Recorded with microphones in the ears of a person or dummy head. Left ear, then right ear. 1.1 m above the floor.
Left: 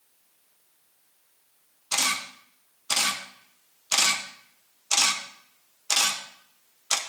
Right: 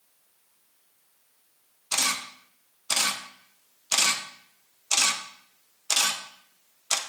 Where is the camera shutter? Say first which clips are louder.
Left 1 dB; centre (ahead or behind), 0.6 m.